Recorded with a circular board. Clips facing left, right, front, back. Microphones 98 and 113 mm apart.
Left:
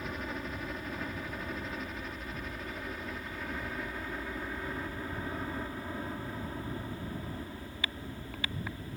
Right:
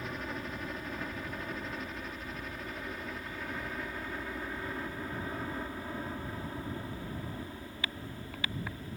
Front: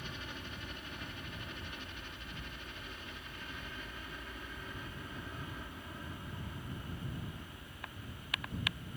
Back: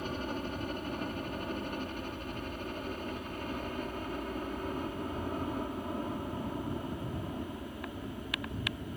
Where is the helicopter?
Straight behind.